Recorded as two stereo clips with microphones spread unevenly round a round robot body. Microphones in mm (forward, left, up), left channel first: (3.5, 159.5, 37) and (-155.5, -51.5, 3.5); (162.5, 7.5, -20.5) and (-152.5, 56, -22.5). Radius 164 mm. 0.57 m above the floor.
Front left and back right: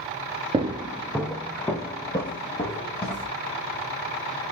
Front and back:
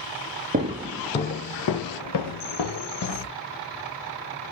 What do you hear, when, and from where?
0.5 s footsteps: 170° left, 0.5 m; by 3.3 s 15° right, 1.4 m